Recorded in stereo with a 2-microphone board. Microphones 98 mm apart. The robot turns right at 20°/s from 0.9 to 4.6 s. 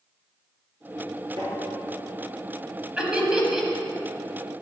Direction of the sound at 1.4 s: 70° right (ahead or behind).